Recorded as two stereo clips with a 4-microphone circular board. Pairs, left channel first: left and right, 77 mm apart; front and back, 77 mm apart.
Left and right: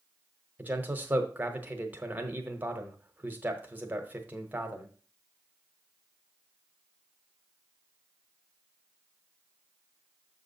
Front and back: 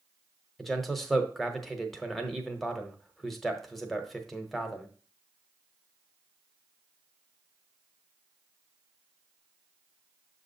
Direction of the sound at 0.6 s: 85° right.